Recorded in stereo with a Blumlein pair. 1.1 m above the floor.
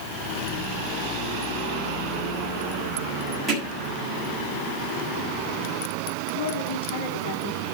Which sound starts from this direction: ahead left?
A woman speaking, at 6.3 s.